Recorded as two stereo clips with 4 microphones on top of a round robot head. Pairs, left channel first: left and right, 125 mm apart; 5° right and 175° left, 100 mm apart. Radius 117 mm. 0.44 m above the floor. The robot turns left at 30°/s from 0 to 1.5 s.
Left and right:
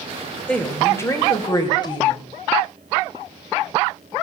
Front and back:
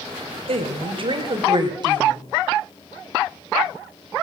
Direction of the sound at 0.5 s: 170° left.